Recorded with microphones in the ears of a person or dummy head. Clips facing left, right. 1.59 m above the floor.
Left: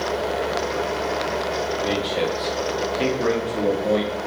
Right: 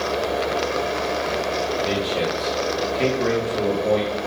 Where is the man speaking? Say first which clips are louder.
Even; 5° left (ahead or behind), 3.5 m.